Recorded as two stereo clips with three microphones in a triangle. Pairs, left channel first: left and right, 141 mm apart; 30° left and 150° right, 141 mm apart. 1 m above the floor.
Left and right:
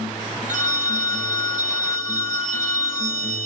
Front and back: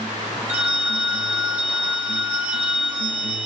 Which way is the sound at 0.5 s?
70° right.